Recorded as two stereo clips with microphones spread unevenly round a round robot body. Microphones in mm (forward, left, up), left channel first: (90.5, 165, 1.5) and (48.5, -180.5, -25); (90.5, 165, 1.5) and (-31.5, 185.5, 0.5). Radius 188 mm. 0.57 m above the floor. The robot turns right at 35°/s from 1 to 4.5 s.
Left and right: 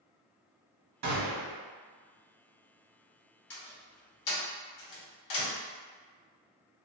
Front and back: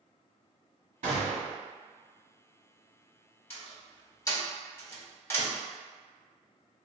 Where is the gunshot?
145° right, 0.9 m; by 1.6 s 130° right, 0.9 m.